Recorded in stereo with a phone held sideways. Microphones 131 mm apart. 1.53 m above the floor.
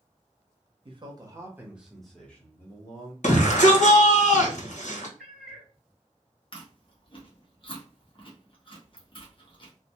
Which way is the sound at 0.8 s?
40° right (ahead or behind).